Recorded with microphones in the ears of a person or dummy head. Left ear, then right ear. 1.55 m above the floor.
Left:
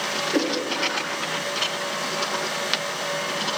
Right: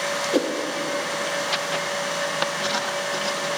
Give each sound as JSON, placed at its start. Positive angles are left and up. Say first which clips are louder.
{"t": 0.3, "sound": "a whoosh", "louder": "right 1 dB", "side_deg": -30, "distance_m": 0.5}